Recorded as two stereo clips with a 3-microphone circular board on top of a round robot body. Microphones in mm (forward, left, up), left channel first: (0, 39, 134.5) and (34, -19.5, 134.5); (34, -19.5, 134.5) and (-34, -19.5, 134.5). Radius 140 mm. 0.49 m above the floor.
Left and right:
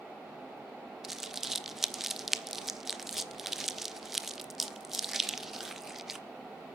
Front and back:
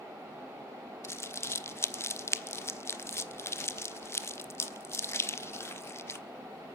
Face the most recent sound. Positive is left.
turn(degrees=25)